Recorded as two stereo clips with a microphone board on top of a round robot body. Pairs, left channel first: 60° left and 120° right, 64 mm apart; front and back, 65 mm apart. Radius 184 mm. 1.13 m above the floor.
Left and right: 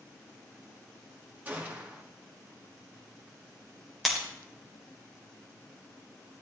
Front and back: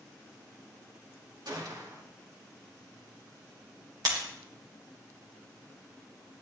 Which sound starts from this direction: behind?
A gunshot, at 1.4 s.